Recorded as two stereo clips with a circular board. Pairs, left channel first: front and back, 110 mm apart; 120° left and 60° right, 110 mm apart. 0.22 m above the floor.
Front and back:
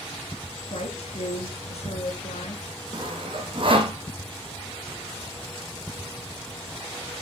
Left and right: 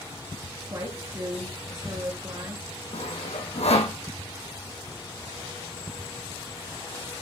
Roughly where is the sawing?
Behind left.